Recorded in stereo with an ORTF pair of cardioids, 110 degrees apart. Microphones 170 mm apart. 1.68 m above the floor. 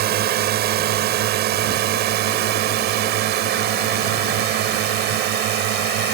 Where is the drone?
65° right; by 6.1 s 75° right.